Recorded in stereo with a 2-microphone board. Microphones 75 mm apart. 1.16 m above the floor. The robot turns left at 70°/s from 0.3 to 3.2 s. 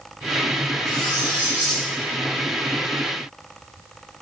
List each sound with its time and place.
0.8 s cutlery clinking: 130° left, 1.0 m; by 1.9 s 60° left, 1.0 m